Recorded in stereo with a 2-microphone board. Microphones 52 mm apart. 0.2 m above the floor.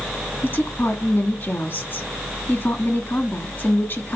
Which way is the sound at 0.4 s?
45° left (ahead or behind).